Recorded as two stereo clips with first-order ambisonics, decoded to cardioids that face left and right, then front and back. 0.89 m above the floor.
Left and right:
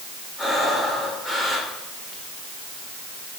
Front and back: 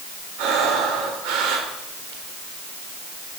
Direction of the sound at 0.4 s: 170° left.